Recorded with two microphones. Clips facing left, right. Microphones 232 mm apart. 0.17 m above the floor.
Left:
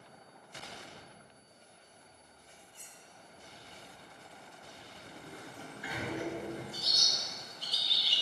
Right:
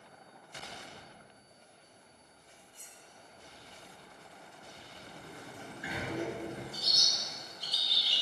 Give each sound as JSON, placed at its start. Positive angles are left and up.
{"t": 2.7, "sound": "cutlery clinking", "side_deg": 65, "distance_m": 2.5}
{"t": 5.0, "sound": "a sliding door", "side_deg": -20, "distance_m": 1.8}
{"t": 6.7, "sound": "a bird", "side_deg": -15, "distance_m": 2.0}